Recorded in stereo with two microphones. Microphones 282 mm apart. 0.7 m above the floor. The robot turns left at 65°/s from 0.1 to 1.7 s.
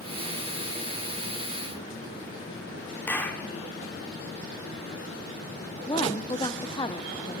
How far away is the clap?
About 1.8 m.